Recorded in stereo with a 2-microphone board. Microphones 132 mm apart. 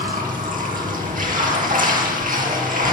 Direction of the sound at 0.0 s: 75° right (ahead or behind).